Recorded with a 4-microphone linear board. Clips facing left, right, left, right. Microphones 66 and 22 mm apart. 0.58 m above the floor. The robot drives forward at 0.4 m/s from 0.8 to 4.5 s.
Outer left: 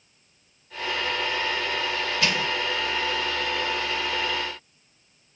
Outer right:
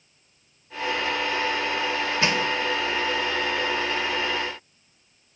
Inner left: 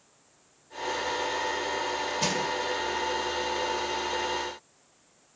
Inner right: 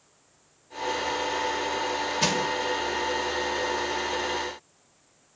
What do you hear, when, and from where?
2.2 s crushing: 25° right (ahead or behind), 2 m; by 2.4 s 30° right (ahead or behind), 2 m